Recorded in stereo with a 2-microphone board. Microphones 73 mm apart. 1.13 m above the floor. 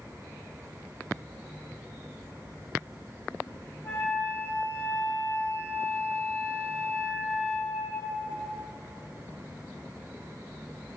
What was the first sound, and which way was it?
A flute, 30° left (ahead or behind).